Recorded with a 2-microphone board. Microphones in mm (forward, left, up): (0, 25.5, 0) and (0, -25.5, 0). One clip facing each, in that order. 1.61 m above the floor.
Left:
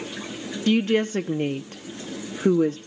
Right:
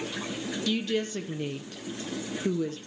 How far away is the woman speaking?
About 0.6 m.